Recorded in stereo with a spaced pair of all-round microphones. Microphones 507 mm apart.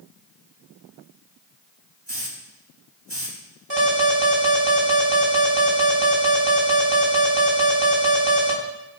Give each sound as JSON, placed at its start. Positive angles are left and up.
{"t": 2.1, "sound": "a hiss", "side_deg": -55, "distance_m": 3.0}
{"t": 3.7, "sound": "an alarm", "side_deg": -55, "distance_m": 4.0}